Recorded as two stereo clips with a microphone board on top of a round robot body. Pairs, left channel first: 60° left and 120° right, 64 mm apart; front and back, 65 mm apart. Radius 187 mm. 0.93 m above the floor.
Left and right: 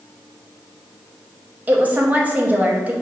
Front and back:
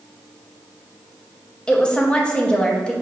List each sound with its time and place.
1.7 s a woman speaking: 70° right, 1.0 m